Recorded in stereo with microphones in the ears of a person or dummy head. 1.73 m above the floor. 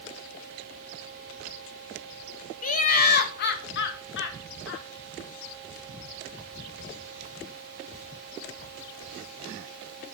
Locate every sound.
2.6 s laughter: 40° left (ahead or behind), 1.6 m; by 4.8 s 70° left (ahead or behind), 2.5 m